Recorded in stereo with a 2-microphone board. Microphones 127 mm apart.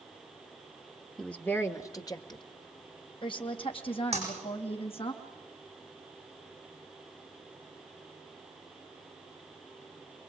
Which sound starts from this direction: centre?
A woman speaking, at 1.2 s.